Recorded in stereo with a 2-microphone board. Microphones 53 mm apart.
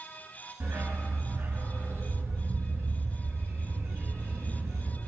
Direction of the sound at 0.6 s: 55° right (ahead or behind).